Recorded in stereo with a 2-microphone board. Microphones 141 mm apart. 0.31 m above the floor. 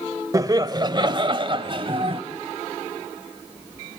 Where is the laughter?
25° right (ahead or behind), 1.2 m; by 2.2 s 40° right (ahead or behind), 1.8 m.